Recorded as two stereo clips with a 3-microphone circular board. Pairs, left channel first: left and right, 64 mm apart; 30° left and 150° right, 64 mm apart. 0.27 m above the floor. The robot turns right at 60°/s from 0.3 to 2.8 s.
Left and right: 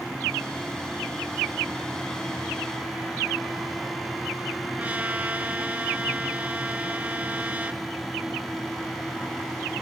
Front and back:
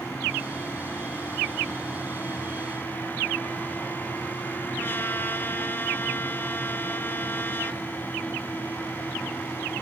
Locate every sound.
4.8 s a trumpet: 20° right, 1.1 m